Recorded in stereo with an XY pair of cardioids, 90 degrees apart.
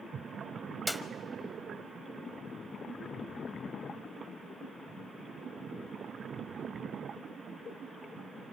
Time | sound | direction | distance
0.9 | a clap | 5° left | 0.9 m